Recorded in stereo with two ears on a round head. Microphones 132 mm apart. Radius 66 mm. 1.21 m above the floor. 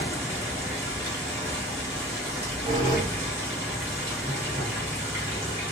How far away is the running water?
About 1.5 m.